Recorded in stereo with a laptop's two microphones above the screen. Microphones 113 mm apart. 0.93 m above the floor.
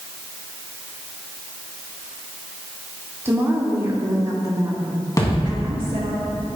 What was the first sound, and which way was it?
A woman speaking, 20° right (ahead or behind).